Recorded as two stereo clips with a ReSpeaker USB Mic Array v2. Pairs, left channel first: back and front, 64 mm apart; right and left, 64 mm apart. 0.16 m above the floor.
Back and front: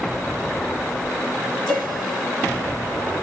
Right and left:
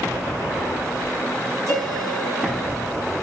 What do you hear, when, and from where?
1.7 s a piano: 95° left, 3 m